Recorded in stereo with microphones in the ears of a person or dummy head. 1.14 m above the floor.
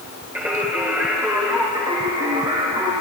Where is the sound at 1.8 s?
20° right (ahead or behind), 1.7 m.